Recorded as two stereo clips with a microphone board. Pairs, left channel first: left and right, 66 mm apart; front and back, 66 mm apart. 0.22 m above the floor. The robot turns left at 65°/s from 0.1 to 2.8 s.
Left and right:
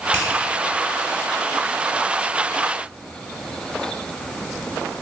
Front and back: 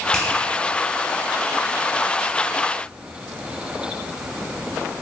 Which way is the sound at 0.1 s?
50° left.